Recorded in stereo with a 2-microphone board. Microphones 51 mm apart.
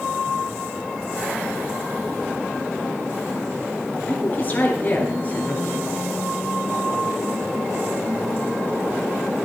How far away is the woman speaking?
About 3 m.